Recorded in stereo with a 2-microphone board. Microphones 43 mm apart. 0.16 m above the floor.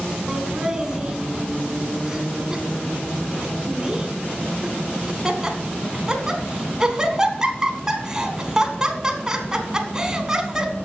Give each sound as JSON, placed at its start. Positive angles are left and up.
{"t": 0.3, "sound": "laughter", "side_deg": -15, "distance_m": 1.1}